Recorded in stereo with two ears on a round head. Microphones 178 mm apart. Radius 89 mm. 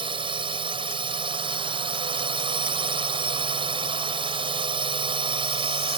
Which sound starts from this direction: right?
A drone, at 0.0 s.